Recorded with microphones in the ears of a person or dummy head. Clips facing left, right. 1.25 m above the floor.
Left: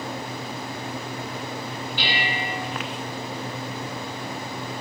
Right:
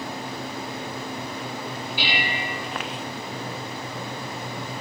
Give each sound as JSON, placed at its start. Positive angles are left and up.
{"t": 2.0, "sound": "dishes clattering", "side_deg": -5, "distance_m": 2.5}